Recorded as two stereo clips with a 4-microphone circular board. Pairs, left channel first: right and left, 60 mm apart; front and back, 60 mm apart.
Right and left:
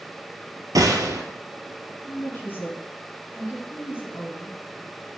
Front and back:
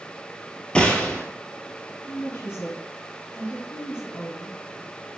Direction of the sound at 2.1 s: 40° right.